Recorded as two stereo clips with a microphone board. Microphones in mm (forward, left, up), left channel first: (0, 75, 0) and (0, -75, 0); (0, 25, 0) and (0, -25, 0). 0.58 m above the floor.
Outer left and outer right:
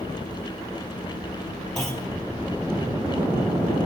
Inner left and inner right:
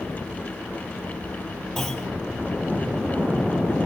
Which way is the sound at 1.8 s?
5° left (ahead or behind).